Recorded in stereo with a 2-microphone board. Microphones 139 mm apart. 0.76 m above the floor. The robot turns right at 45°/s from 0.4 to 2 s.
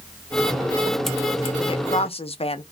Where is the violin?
No violin in this recording.